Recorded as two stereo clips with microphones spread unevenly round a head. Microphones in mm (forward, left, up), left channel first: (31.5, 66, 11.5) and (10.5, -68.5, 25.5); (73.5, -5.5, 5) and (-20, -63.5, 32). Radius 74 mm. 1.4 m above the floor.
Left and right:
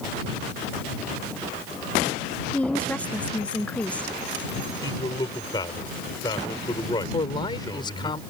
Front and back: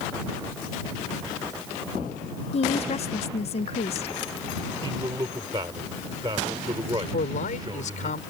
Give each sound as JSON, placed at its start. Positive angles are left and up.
{"t": 2.5, "sound": "a woman speaking", "azimuth_deg": 0}
{"t": 4.8, "sound": "a man speaking", "azimuth_deg": 150}
{"t": 7.1, "sound": "a man speaking", "azimuth_deg": 25}